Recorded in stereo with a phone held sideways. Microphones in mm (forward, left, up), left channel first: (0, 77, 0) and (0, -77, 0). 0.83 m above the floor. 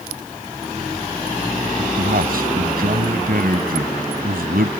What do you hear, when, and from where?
1.8 s a man speaking: 80° right